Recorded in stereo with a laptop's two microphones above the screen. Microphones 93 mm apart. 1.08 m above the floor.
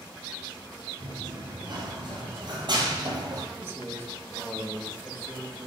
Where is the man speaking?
25° right (ahead or behind), 1.1 m.